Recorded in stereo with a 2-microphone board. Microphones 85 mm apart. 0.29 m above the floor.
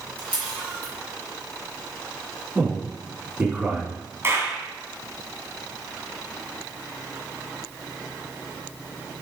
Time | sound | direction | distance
0.2 | a camera shutter | 20° left (ahead or behind) | 4.5 m
2.5 | a man speaking | 15° right (ahead or behind) | 3.5 m
4.2 | a clap | 30° right (ahead or behind) | 2.5 m